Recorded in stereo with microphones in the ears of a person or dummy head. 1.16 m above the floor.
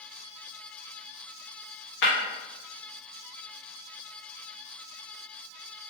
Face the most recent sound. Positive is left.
turn(degrees=70)  # may be behind; listen again after turning